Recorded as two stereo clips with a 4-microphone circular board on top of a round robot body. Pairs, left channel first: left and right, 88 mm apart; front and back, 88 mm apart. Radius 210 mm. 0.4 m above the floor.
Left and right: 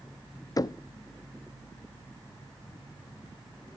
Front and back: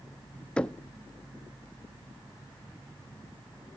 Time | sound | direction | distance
0.6 | knocking | 70° left | 0.5 m